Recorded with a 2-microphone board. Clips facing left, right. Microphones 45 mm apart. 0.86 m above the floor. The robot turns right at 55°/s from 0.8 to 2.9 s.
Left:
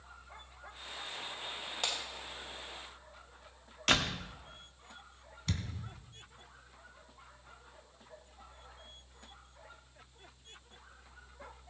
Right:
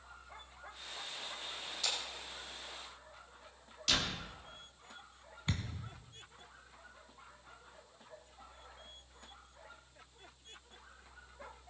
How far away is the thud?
About 1.8 m.